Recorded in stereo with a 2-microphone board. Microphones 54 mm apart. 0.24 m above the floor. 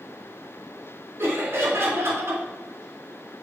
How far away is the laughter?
About 3 m.